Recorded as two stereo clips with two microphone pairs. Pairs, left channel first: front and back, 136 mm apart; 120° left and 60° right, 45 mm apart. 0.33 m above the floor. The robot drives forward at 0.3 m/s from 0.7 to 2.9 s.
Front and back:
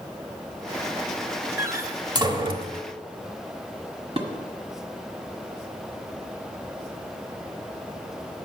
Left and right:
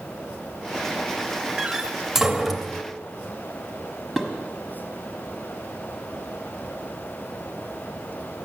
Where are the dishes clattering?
145° right, 1.4 m.